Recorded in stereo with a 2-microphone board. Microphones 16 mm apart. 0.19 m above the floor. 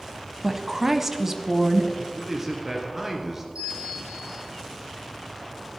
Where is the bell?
80° right, 6 m.